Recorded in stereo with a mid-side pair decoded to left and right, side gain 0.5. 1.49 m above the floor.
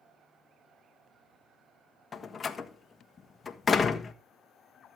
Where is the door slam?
30° left, 1.6 m.